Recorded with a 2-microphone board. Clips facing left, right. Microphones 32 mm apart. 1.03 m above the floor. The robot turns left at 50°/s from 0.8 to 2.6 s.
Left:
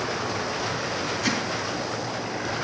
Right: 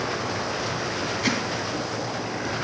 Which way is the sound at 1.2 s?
25° right (ahead or behind).